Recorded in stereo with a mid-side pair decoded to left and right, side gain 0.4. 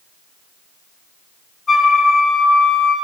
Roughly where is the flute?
Ahead left.